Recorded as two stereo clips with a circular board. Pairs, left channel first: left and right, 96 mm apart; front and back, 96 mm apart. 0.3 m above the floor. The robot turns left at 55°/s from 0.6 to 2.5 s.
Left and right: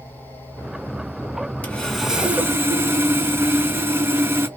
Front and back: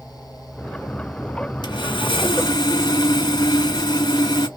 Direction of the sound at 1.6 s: 15° left.